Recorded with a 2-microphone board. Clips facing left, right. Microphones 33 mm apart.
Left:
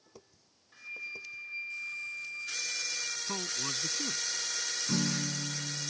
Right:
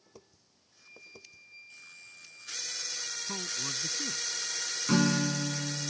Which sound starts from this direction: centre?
A man speaking, at 3.3 s.